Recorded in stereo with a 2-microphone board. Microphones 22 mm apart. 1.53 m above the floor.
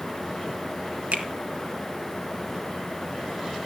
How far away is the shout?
No shout in this recording.